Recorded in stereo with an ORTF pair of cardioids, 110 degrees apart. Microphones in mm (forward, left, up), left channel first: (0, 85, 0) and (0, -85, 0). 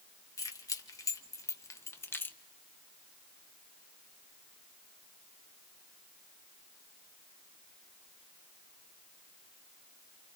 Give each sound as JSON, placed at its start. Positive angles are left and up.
{"t": 0.4, "sound": "keys jangling", "azimuth_deg": 20, "distance_m": 2.0}